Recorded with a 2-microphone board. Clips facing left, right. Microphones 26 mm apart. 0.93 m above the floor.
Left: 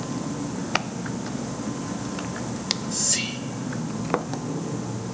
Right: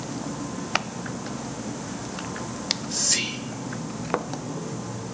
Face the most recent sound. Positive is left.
turn(degrees=-50)  # may be behind; listen again after turning